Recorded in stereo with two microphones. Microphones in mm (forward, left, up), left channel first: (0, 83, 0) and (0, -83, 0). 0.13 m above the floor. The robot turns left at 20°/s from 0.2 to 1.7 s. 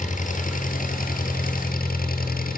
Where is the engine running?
115° left, 2.5 m; by 2.6 s 85° left, 2.5 m.